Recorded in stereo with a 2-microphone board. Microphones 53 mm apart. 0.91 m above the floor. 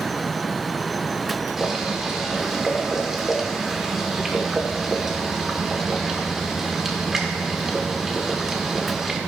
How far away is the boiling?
About 1.5 m.